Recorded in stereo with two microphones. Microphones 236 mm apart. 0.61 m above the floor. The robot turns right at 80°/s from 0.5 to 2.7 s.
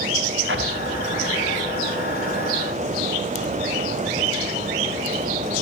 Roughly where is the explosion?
Right.